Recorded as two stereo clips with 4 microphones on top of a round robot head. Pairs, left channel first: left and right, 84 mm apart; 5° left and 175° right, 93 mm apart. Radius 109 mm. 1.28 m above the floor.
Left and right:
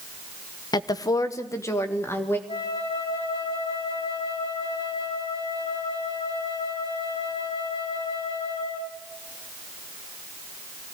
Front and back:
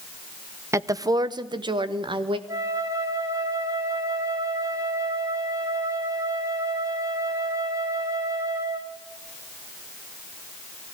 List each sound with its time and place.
0.7 s a woman speaking: 125° left, 1.0 m; by 2.4 s 155° left, 2 m
2.5 s a flute: 125° left, 3 m